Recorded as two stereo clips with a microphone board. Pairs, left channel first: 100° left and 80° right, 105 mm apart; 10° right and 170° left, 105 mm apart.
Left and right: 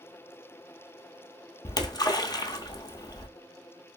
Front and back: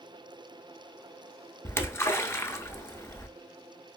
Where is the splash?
50° left, 0.5 m.